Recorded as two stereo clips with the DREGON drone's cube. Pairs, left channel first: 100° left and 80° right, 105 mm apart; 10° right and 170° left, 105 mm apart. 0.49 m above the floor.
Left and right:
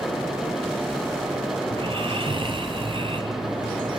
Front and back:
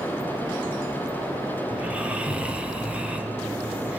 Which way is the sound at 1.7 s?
115° right.